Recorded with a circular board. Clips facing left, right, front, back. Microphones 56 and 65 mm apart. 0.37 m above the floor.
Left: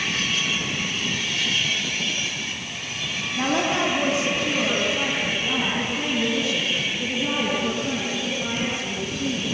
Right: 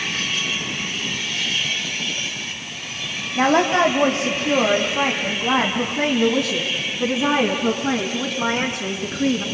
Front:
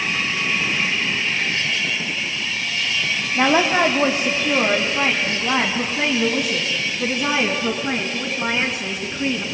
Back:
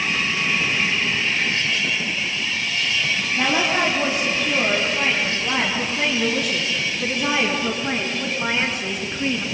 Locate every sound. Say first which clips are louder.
3.4 s a woman speaking: right 7 dB, front 5 dB; 50° right, 3 m; by 9.4 s 90° right, 5 m